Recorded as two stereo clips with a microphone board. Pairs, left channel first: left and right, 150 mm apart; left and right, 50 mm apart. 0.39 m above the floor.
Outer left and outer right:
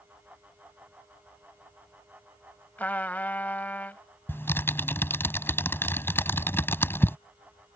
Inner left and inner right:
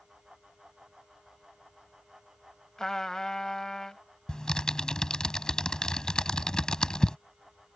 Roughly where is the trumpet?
Centre.